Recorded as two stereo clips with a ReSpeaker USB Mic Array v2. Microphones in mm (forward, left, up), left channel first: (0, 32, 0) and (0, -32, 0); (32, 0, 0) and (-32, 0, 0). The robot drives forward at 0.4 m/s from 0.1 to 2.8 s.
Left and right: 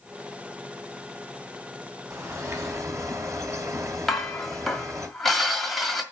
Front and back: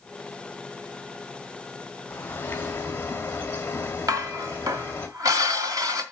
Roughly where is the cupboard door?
No cupboard door in this recording.